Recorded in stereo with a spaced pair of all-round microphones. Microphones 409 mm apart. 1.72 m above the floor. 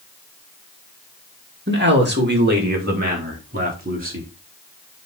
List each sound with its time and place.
1.7 s a man speaking: 25° right (ahead or behind), 2 m; by 4.3 s 20° right (ahead or behind), 4.5 m